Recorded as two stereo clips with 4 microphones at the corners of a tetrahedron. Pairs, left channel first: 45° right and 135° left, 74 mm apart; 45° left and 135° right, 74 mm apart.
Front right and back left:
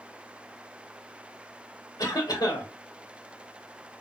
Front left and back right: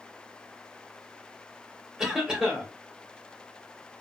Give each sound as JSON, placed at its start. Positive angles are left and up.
{"t": 2.0, "sound": "a cough", "azimuth_deg": -45, "distance_m": 2.5}